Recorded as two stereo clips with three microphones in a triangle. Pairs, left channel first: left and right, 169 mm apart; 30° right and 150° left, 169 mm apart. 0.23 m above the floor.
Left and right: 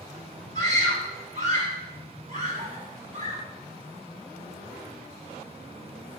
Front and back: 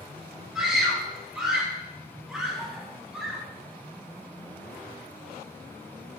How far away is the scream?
About 3.5 m.